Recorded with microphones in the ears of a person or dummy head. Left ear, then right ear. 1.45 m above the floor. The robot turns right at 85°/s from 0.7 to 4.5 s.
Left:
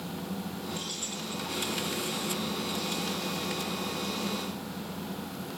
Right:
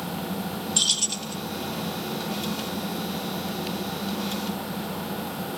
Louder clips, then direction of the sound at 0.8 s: Right 15 dB; 50° right.